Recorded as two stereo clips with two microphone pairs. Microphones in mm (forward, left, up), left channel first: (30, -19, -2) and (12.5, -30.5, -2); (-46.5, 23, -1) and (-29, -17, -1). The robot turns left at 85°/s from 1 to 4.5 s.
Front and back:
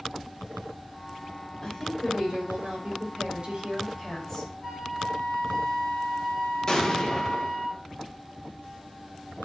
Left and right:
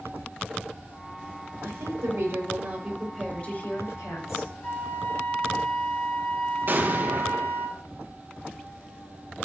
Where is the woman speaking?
30° right, 6 m; by 4.5 s 85° left, 6 m.